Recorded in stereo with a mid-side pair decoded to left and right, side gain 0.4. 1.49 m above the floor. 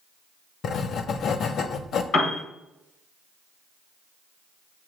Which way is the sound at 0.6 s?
70° left.